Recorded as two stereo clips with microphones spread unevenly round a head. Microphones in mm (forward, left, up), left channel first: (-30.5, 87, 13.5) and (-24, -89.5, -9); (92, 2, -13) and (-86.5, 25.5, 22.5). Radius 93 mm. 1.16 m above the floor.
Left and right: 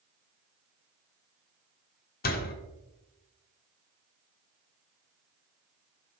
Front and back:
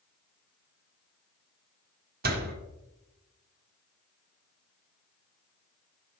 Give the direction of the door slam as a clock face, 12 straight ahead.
8 o'clock.